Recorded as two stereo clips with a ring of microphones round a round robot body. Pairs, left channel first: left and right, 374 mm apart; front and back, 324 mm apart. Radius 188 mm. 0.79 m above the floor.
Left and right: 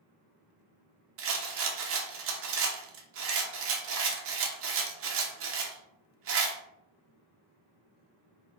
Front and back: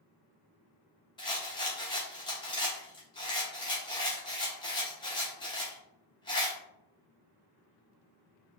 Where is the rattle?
65° right, 0.7 m.